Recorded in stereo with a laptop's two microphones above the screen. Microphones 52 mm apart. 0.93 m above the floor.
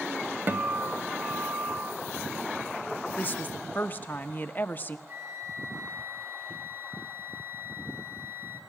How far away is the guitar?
About 0.9 m.